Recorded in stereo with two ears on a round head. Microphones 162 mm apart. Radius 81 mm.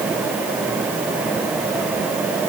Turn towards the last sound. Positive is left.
No sound to turn to.